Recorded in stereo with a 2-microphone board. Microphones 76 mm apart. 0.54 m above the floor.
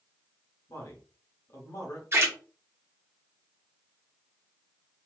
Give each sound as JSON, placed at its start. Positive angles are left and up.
{"t": 0.7, "sound": "a man speaking", "side_deg": 45, "distance_m": 1.5}
{"t": 2.1, "sound": "a splash", "side_deg": -35, "distance_m": 1.6}